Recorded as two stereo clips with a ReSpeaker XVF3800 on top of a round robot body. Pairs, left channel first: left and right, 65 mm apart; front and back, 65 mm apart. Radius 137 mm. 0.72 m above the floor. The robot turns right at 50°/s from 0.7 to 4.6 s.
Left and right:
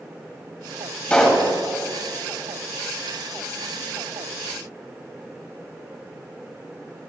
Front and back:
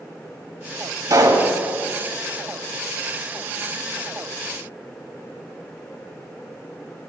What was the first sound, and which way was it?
A pop, 160° left.